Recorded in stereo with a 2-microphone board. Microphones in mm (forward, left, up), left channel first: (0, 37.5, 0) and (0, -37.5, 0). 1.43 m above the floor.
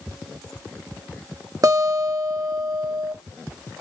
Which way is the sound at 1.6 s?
50° right (ahead or behind).